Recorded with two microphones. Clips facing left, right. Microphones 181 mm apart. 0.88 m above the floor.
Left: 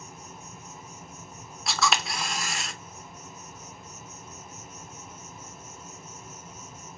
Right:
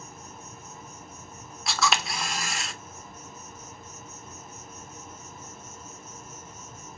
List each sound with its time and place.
0.0 s an insect: centre (ahead or behind), 1.6 m
1.7 s a camera shutter: centre (ahead or behind), 0.6 m